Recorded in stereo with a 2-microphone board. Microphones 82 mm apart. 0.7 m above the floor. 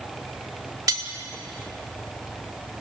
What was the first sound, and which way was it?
Cutlery clinking, 50° right (ahead or behind).